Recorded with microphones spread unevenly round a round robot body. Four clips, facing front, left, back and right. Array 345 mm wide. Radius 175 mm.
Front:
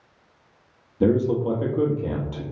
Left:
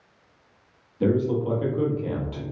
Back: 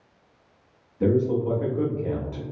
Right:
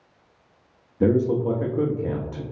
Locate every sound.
1.0 s a man speaking: 35° right, 1.0 m